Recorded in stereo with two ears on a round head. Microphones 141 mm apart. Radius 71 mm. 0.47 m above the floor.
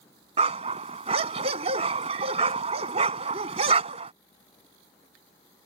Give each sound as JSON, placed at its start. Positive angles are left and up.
{"t": 0.4, "sound": "a dog barking", "side_deg": -40}